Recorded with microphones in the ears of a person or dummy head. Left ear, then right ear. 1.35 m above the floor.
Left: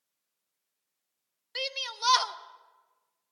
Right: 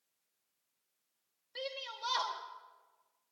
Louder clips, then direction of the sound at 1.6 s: Left 8 dB; 60° left (ahead or behind).